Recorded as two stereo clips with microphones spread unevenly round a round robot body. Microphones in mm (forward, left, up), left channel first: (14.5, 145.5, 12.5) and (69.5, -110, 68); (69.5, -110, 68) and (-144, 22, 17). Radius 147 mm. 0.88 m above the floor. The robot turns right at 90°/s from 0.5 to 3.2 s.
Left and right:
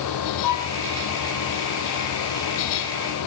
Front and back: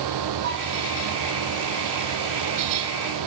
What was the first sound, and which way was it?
A violin, 95° left.